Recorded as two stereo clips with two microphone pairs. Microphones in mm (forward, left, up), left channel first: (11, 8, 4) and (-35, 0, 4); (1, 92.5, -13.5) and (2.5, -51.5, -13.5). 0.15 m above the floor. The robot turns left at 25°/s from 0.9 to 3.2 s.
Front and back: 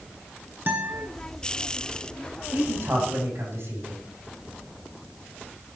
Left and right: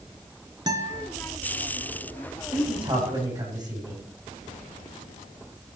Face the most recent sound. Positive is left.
turn(degrees=-150)